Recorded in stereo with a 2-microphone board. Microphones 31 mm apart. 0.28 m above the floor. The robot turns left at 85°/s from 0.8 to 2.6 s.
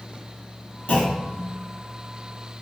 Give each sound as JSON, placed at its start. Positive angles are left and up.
{"t": 0.9, "sound": "a clunk", "azimuth_deg": 105, "distance_m": 1.6}